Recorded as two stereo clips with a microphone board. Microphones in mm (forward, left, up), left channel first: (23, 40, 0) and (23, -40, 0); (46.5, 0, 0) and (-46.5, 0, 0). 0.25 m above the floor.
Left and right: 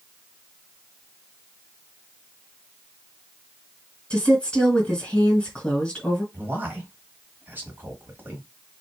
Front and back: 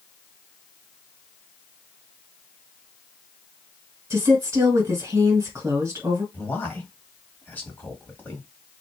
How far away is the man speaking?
About 1.4 m.